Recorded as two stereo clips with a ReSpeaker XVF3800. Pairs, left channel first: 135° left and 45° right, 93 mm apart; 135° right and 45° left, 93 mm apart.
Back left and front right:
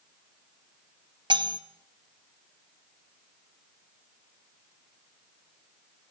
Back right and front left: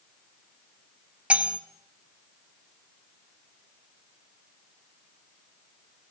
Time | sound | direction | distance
1.3 | cutlery clinking | 30° right | 1.4 m